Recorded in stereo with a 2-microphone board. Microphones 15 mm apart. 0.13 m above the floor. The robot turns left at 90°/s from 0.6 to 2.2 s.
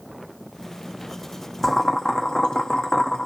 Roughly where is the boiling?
Behind.